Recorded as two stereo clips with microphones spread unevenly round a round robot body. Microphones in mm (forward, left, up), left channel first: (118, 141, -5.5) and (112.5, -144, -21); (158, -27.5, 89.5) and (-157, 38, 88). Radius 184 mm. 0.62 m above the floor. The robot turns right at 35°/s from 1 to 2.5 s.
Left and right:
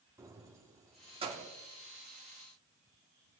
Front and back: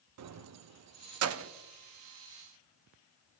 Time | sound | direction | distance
0.2 | keys jangling | 165° right | 0.6 m